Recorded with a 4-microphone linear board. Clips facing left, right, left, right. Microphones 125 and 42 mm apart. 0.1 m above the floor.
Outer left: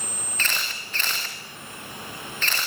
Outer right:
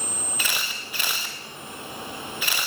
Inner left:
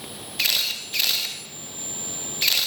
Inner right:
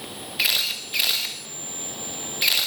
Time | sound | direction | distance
0.4 | a camera shutter | 10° right (ahead or behind) | 5 m